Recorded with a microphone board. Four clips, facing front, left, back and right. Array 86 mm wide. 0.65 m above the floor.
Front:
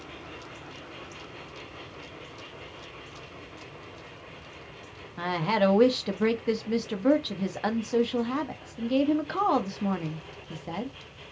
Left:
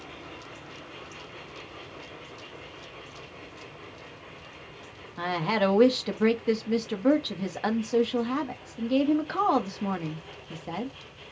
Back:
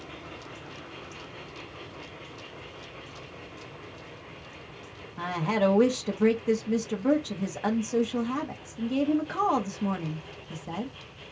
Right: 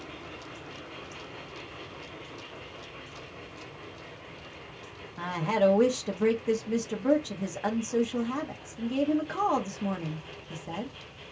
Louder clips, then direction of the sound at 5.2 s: Even, front 1 dB; 45° left.